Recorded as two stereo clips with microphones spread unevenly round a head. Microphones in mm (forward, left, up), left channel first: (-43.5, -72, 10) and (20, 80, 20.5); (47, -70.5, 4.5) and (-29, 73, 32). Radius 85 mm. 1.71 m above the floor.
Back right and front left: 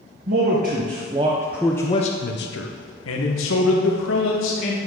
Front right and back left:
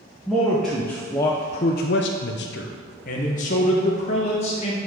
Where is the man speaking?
35° left, 1.3 m; by 4.8 s 120° right, 2.5 m.